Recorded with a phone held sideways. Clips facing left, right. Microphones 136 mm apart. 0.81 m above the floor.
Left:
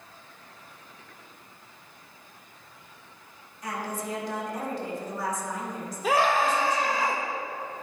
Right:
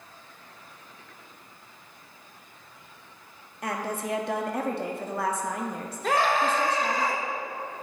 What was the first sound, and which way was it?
A woman speaking, 70° right (ahead or behind).